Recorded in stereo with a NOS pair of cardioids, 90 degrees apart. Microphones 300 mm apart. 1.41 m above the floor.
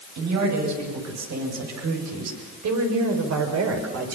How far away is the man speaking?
About 9.5 m.